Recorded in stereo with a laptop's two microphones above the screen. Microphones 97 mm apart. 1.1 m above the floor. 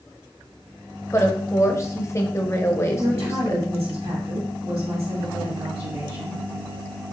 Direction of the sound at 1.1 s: 30° left (ahead or behind).